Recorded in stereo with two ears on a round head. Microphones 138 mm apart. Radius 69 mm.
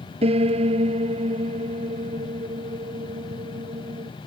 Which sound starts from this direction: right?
A piano, at 0.2 s.